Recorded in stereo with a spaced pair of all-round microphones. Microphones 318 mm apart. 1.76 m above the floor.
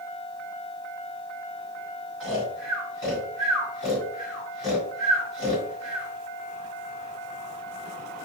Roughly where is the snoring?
Left.